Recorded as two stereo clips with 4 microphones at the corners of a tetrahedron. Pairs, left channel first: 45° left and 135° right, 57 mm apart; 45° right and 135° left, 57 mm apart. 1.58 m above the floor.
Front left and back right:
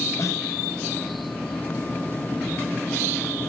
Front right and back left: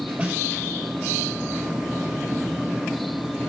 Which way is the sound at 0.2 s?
75° left.